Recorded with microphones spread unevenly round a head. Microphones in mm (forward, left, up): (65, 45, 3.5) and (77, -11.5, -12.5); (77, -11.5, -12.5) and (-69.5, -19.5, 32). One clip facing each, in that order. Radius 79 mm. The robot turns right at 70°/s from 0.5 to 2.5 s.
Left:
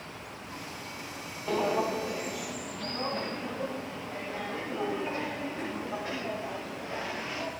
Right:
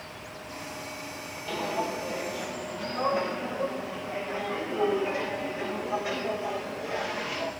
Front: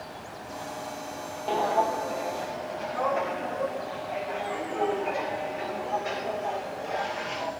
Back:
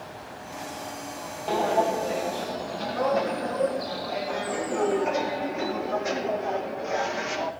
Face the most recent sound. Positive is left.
turn(degrees=-165)